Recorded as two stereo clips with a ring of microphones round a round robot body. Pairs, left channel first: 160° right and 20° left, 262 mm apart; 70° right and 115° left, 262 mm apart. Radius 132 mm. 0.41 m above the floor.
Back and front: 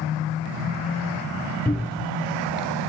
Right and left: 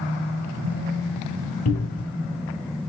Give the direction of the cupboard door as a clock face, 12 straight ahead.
2 o'clock.